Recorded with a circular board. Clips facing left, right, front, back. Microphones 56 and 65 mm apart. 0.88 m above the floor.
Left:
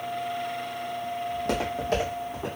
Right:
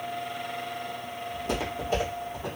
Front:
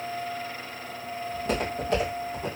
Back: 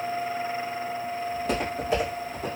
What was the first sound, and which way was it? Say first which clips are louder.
Footsteps: left 1 dB, front 1 dB; 90° left.